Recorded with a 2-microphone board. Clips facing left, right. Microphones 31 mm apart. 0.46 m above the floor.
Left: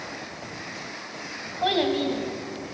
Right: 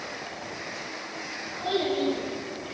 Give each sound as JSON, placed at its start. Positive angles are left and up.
{"t": 1.6, "sound": "a child speaking", "side_deg": 60, "distance_m": 2.5}